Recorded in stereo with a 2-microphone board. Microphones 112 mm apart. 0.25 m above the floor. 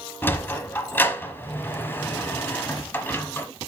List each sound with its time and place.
0.2 s a sliding door: 20° left (ahead or behind), 1.1 m